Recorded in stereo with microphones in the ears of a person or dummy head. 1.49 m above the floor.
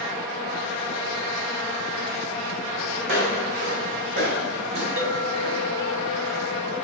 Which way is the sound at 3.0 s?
65° right (ahead or behind).